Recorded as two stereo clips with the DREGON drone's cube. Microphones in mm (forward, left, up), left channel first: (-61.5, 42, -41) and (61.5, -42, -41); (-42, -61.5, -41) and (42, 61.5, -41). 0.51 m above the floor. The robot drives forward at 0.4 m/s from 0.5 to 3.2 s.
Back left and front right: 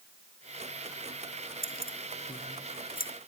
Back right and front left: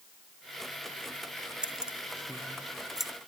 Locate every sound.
1.6 s keys jangling: 140° left; by 3.1 s 145° left